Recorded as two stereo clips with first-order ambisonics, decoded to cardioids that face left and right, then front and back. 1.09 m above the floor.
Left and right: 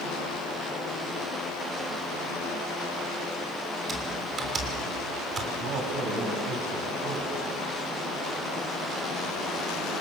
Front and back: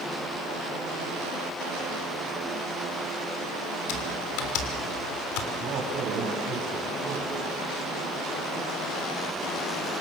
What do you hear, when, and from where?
3.9 s typing on a keyboard: 20° right, 3 m
5.5 s a man speaking: 135° right, 6 m